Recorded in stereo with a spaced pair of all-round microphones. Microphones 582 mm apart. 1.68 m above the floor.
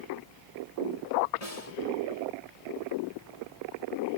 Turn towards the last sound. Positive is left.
turn(degrees=80)